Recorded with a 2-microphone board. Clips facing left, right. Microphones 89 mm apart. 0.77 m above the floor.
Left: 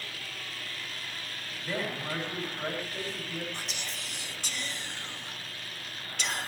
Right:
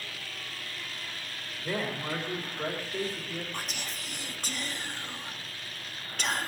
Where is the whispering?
50° right (ahead or behind), 0.9 m.